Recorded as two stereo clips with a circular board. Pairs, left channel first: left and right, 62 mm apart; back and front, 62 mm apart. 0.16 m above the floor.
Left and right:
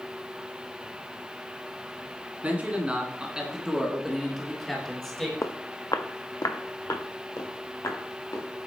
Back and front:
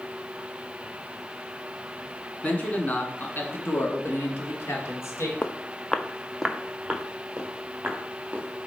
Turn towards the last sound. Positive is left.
turn(degrees=65)